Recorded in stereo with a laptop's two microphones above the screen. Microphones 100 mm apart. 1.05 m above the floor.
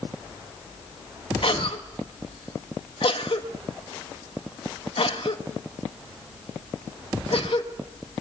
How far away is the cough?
About 1.5 m.